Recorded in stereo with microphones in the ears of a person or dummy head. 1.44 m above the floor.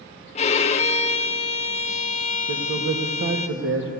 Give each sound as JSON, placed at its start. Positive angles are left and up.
{"t": 0.3, "sound": "a violin", "side_deg": 35, "distance_m": 0.6}
{"t": 2.5, "sound": "a man speaking", "side_deg": -70, "distance_m": 1.5}